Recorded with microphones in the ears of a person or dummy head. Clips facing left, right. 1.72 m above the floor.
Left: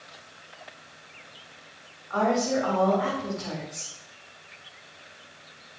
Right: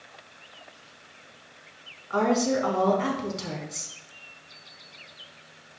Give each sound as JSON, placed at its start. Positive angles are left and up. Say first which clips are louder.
{"t": 2.1, "sound": "a woman speaking", "louder": "right 1 dB", "side_deg": -50, "distance_m": 3.0}